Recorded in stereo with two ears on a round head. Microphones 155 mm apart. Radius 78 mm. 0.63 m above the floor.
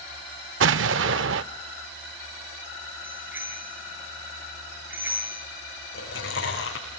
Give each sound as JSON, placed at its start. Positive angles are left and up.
{"t": 0.6, "sound": "an explosion", "side_deg": -80, "distance_m": 0.5}
{"t": 3.0, "sound": "a bicycle bell", "side_deg": -10, "distance_m": 7.0}
{"t": 5.9, "sound": "chewing", "side_deg": 80, "distance_m": 6.5}